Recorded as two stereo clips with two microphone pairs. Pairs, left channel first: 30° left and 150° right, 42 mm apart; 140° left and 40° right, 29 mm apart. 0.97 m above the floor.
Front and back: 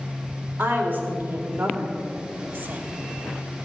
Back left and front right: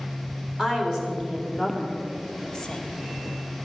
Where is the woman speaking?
110° right, 4 m; by 2.8 s 165° right, 1.4 m.